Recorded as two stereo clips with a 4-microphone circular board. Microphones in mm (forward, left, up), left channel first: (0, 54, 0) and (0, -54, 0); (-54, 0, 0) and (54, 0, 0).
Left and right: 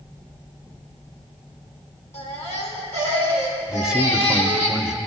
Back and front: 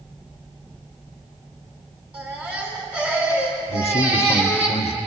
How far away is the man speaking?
About 0.7 m.